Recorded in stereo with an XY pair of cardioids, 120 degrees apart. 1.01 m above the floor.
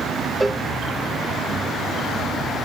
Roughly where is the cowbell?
Ahead.